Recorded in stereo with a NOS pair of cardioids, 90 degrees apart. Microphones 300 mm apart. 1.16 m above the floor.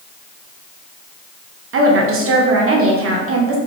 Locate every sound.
1.7 s a woman speaking: 50° right, 0.8 m